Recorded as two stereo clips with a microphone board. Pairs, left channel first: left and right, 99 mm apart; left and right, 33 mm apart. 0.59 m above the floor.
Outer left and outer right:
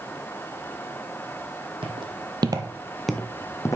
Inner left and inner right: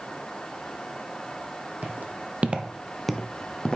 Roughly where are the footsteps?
Right.